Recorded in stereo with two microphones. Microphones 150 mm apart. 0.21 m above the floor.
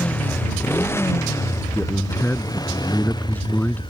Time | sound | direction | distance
0.0 | a motorcycle | 10° left (ahead or behind) | ?
1.7 | a man speaking | 10° left (ahead or behind) | ?